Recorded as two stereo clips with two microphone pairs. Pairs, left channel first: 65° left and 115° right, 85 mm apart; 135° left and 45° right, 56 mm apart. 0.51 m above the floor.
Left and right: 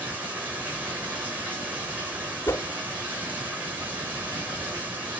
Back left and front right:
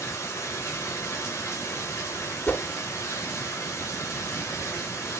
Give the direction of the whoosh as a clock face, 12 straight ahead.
9 o'clock.